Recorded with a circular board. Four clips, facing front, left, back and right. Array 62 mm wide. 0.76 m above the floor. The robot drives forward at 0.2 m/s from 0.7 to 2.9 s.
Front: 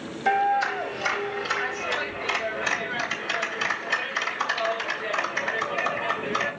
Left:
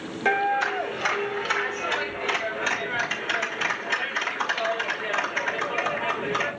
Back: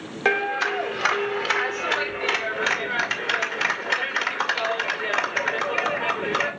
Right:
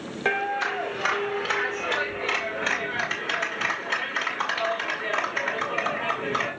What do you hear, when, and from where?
0.2 s a clap: 175° right, 2 m